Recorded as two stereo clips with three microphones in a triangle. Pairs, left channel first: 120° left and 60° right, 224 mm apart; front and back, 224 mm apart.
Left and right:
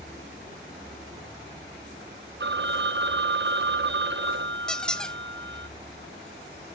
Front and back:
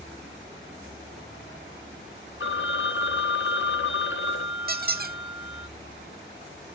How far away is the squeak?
About 0.5 m.